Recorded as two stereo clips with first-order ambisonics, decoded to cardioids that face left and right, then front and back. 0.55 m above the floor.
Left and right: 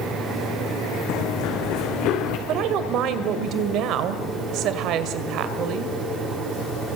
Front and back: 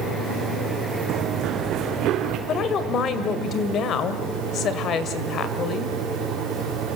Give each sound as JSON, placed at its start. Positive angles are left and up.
{"t": 1.1, "sound": "running footsteps", "azimuth_deg": 130, "distance_m": 2.5}
{"t": 2.5, "sound": "a woman speaking", "azimuth_deg": -55, "distance_m": 2.0}